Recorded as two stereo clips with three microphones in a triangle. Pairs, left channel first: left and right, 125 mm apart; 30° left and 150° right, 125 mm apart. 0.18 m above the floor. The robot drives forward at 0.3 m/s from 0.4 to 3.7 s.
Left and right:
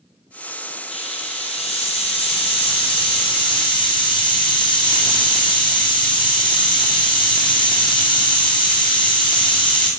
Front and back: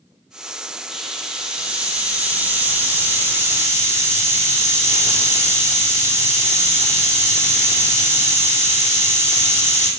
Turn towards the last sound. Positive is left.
turn(degrees=140)